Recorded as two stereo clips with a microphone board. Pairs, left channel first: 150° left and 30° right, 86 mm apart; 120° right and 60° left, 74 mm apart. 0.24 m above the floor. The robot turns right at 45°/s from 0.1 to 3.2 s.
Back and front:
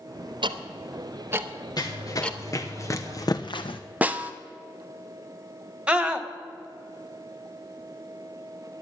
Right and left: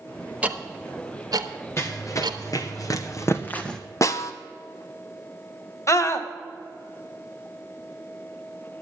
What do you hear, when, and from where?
0.4 s ticking: 10° right, 0.9 m; by 2.4 s 80° left, 0.9 m
1.8 s running footsteps: 175° right, 1.7 m; by 3.8 s 155° left, 1.0 m
4.0 s a snare drum: 100° right, 0.8 m
5.9 s a scream: 105° right, 1.3 m